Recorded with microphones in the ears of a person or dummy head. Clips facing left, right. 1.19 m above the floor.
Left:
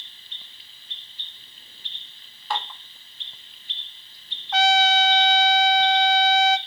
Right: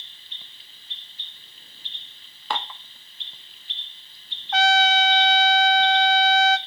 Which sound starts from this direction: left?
A trumpet, at 4.5 s.